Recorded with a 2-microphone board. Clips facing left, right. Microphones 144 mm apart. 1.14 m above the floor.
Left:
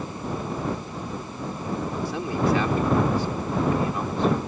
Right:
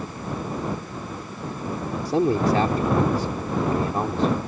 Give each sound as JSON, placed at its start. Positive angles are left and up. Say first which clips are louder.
{"t": 2.0, "sound": "a man speaking", "louder": "right 5 dB", "side_deg": -45}